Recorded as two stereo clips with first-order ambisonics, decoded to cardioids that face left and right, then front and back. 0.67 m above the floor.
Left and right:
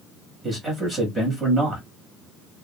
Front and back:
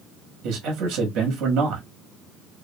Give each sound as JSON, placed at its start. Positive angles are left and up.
{"t": 0.4, "sound": "a man speaking", "azimuth_deg": -170, "distance_m": 1.0}